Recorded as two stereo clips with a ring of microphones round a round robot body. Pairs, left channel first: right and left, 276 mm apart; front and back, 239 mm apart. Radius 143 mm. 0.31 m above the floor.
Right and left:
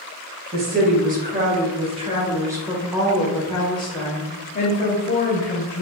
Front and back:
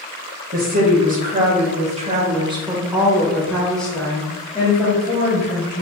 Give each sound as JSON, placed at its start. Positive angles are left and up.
{"t": 0.5, "sound": "a woman speaking", "azimuth_deg": 135, "distance_m": 1.8}